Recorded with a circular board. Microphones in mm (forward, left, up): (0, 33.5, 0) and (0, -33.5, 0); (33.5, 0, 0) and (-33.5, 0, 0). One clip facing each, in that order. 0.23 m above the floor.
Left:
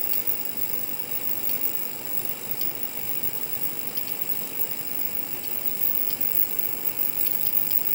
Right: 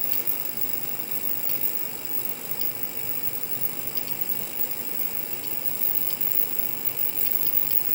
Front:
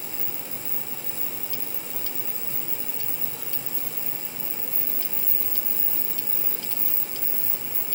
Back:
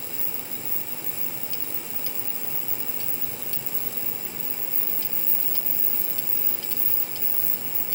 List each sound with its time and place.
Only background noise.